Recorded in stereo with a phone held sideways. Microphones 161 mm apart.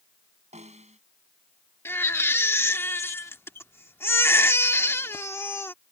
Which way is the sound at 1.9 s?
15° left (ahead or behind).